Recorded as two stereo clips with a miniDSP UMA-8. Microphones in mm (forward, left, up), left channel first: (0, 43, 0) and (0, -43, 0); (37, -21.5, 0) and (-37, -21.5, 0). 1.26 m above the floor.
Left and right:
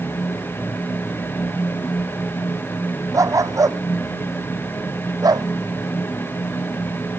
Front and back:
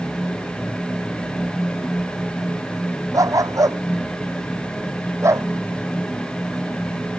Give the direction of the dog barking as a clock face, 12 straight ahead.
5 o'clock.